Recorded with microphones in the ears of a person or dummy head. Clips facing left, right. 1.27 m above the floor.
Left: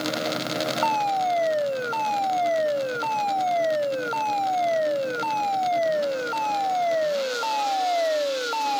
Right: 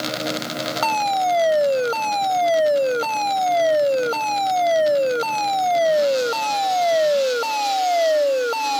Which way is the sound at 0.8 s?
60° right (ahead or behind).